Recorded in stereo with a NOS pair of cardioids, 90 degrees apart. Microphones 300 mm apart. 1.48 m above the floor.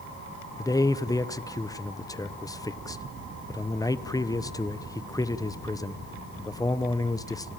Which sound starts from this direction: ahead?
A man speaking, at 0.6 s.